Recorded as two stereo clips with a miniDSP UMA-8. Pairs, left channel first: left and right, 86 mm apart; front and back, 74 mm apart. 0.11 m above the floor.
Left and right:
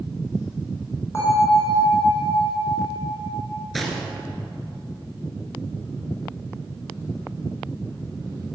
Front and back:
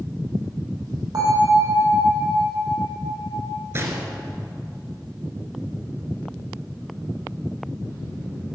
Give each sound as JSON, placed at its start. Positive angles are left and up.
{"t": 1.1, "sound": "a bell", "azimuth_deg": 150, "distance_m": 4.0}
{"t": 3.7, "sound": "a gunshot", "azimuth_deg": 180, "distance_m": 1.7}